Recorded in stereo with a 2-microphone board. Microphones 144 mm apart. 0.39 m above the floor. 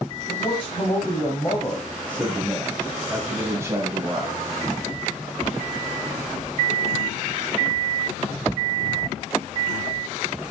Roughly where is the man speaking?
Left.